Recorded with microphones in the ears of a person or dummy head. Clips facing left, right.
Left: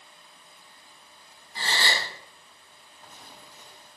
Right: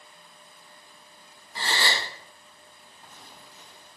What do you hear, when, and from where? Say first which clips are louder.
1.6 s a gasp: right 1 dB; 40° right (ahead or behind), 1.4 m